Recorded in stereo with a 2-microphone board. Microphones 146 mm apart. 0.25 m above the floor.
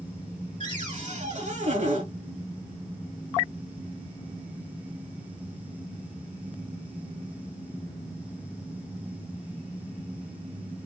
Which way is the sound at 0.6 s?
55° right (ahead or behind).